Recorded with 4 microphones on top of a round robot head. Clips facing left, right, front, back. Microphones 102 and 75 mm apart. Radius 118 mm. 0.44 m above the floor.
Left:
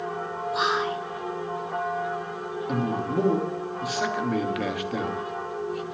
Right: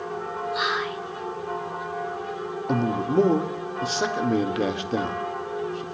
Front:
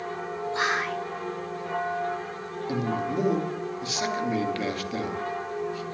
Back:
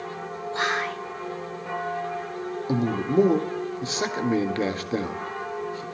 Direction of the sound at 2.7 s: 140° right.